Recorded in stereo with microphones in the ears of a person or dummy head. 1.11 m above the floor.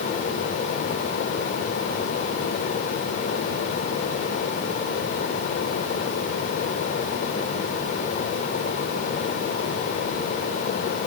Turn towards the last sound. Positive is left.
No sound to turn to.